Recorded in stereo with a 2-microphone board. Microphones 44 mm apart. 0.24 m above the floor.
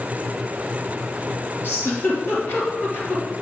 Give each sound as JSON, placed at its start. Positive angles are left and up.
{"t": 1.6, "sound": "a giggle", "side_deg": 50, "distance_m": 3.0}